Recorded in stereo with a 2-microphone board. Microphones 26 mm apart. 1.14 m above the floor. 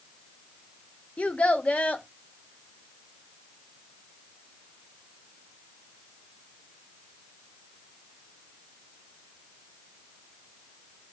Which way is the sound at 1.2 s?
65° left (ahead or behind).